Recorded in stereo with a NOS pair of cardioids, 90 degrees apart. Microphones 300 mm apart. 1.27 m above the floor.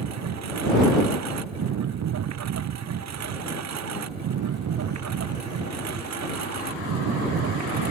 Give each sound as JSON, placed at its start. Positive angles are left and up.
{"t": 0.0, "sound": "a lawn mower", "azimuth_deg": -60}